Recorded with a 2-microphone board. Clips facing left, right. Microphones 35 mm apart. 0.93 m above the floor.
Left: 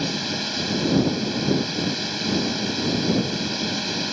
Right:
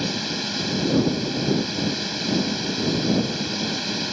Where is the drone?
5° left (ahead or behind).